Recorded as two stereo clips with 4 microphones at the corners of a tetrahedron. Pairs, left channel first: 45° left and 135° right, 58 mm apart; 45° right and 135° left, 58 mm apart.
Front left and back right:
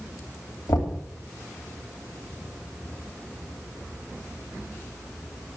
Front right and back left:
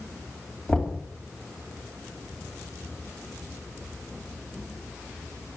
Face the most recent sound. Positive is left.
turn(degrees=30)